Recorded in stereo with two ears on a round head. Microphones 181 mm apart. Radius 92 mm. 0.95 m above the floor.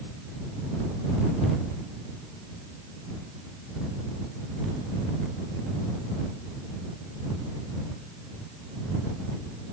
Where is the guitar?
No guitar in this recording.